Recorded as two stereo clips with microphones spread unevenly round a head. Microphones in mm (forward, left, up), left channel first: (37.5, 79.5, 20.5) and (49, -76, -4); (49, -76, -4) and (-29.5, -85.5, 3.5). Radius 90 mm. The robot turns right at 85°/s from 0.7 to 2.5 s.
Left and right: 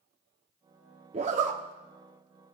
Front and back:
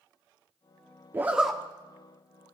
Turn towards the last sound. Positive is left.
turn(degrees=5)